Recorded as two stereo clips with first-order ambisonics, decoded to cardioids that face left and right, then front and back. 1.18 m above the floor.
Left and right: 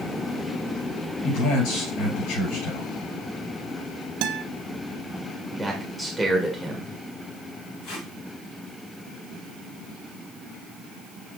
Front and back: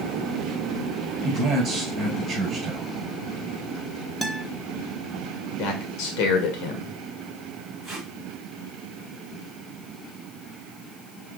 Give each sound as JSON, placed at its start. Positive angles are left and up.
{"t": 1.2, "sound": "a man speaking", "azimuth_deg": 120, "distance_m": 5.0}
{"t": 4.2, "sound": "a guitar", "azimuth_deg": -95, "distance_m": 0.7}
{"t": 5.6, "sound": "a man speaking", "azimuth_deg": 5, "distance_m": 2.0}
{"t": 7.8, "sound": "tape being pulled", "azimuth_deg": 105, "distance_m": 4.5}